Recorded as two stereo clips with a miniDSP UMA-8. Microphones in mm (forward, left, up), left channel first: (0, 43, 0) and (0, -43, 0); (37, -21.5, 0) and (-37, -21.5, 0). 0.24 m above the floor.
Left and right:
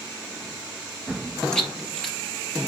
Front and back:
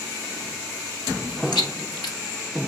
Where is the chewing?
10° left, 1.7 m.